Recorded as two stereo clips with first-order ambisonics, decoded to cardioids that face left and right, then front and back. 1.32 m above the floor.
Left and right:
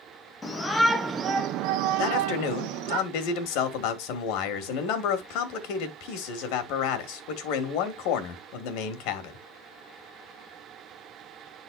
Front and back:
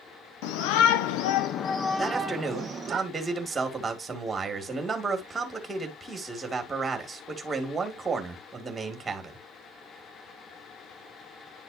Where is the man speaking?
100° left, 1.9 m.